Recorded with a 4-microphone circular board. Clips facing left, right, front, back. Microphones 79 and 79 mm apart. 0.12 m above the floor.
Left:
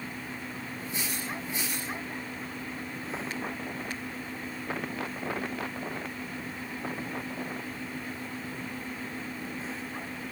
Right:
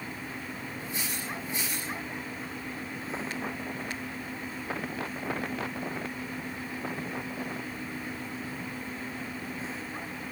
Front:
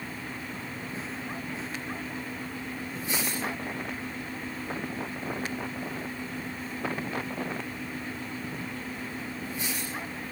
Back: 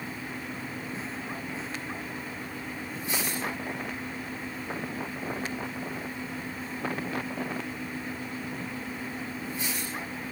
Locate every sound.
Only background noise.